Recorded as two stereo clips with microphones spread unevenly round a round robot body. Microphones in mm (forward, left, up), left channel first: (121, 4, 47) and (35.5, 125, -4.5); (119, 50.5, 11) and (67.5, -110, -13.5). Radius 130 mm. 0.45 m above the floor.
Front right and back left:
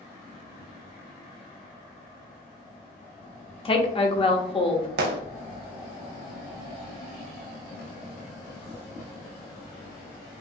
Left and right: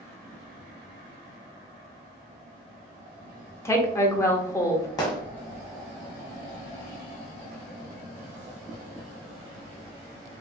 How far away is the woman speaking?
About 0.9 m.